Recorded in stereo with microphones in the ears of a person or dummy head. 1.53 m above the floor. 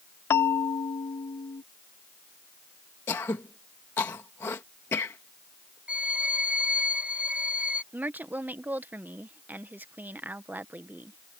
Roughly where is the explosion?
No explosion in this recording.